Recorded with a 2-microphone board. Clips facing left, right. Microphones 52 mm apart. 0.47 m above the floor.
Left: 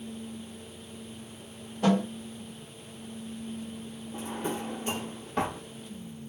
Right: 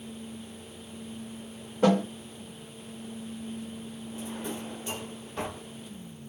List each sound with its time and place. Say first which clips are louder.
1.8 s a snare drum: right 2 dB; 50° right (ahead or behind), 2 m
4.1 s a drawer: left 4 dB; 50° left (ahead or behind), 0.7 m